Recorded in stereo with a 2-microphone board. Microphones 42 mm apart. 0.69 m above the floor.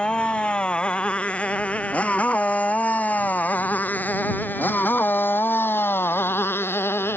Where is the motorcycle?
30° left (ahead or behind); by 7.2 s 90° left.